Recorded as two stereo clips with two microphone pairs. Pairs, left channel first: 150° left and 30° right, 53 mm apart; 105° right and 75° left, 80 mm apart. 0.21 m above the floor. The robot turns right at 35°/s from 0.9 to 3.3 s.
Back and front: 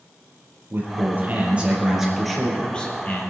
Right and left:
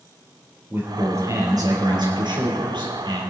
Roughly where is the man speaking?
Ahead.